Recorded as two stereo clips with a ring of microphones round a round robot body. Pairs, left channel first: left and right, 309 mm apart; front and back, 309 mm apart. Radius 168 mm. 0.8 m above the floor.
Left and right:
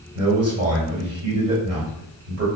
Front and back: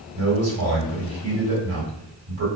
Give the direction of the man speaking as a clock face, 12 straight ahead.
4 o'clock.